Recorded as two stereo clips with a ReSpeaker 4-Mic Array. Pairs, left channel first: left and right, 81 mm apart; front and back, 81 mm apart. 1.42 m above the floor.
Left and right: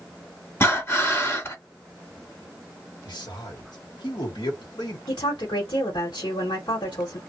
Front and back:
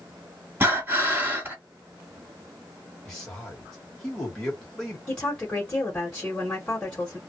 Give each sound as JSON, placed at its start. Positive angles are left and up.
{"t": 0.6, "sound": "breathing", "azimuth_deg": 130, "distance_m": 1.6}
{"t": 3.0, "sound": "a man speaking", "azimuth_deg": 80, "distance_m": 1.1}
{"t": 5.1, "sound": "a woman speaking", "azimuth_deg": 75, "distance_m": 1.1}